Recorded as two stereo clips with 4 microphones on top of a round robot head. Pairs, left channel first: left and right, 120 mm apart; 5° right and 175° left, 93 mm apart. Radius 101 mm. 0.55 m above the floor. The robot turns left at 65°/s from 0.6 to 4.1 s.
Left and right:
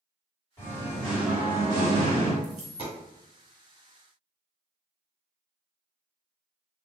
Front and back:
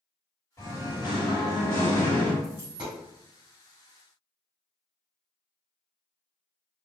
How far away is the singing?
About 1.7 m.